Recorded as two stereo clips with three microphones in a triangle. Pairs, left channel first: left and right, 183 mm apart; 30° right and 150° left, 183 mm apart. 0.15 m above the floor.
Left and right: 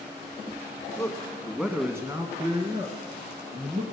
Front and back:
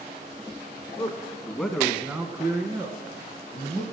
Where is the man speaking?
25° left, 1.4 m; by 3.8 s 145° right, 3 m.